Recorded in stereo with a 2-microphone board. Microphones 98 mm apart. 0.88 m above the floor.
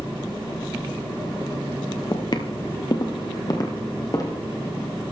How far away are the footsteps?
About 1.2 m.